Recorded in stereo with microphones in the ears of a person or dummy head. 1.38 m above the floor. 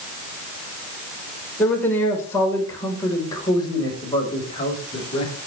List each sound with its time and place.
1.6 s a man speaking: 10° left (ahead or behind), 4 m; by 5.3 s 30° left (ahead or behind), 5.5 m